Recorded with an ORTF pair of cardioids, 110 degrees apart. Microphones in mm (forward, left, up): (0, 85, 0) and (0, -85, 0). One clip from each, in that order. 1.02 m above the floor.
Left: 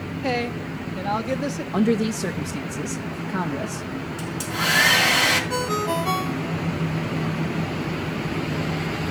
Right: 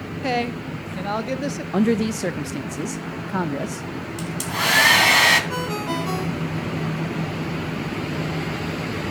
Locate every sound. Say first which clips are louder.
0.2 s a woman speaking: right 2 dB; 10° right, 1.2 m
1.7 s a man speaking: right 1 dB; 15° right, 0.7 m
4.2 s a hair dryer: right 2 dB; 35° right, 3 m
5.5 s a ringtone: left 2 dB; 20° left, 1.4 m